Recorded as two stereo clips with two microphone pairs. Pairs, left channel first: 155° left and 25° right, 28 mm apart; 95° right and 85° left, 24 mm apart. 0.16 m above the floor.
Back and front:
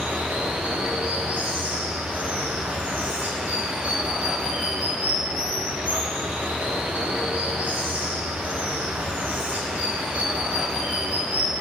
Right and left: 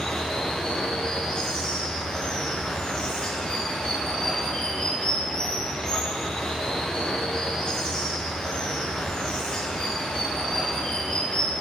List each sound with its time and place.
0.0 s running water: 35° right, 2.5 m